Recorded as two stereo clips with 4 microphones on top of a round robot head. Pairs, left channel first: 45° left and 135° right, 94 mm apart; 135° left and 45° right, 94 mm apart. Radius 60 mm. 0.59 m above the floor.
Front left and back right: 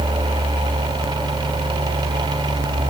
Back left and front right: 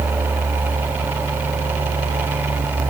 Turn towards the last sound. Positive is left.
No sound to turn to.